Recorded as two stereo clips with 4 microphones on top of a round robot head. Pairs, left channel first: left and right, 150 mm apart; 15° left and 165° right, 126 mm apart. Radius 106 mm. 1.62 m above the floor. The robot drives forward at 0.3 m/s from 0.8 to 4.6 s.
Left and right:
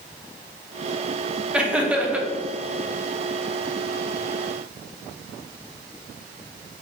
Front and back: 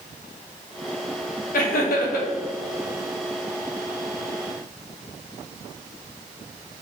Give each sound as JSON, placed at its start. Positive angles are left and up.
{"t": 1.5, "sound": "laughter", "azimuth_deg": -5, "distance_m": 0.9}